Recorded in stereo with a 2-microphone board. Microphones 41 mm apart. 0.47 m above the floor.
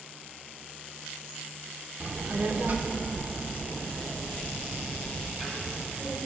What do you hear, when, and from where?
2.0 s a child speaking: 30° right (ahead or behind), 0.5 m; by 6.2 s 25° right (ahead or behind), 2 m